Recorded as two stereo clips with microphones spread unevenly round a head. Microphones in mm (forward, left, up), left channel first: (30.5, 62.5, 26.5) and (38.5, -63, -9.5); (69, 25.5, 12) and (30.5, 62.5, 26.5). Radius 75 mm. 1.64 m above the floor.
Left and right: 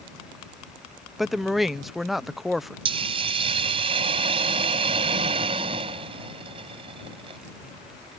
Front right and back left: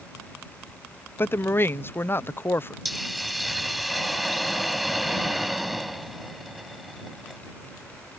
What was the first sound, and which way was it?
A woman speaking, straight ahead.